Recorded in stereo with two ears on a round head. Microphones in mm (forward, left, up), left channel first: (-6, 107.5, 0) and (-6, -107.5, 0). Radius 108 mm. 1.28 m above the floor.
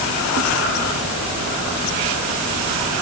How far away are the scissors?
I don't hear scissors.